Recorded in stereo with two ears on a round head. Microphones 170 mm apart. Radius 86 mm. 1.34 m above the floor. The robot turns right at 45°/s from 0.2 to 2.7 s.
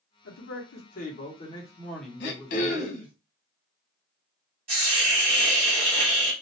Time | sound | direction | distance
0.2 | a man speaking | 95° left | 0.9 m
2.2 | throat clearing | 60° left (ahead or behind) | 0.7 m
4.7 | a hiss | 30° right (ahead or behind) | 1.5 m